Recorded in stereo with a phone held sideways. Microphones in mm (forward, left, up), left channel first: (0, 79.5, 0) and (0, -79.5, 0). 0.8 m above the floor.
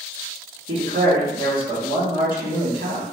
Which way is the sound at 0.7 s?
60° right (ahead or behind).